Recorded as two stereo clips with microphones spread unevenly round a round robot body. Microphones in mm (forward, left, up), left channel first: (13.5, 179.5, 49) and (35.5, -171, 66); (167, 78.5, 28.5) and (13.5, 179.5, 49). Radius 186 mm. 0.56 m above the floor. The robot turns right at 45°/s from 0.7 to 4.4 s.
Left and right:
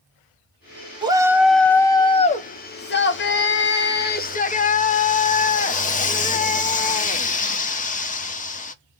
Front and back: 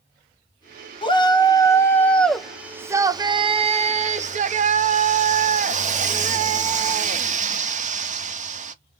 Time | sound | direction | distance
1.0 | a shout | 15° right | 0.8 m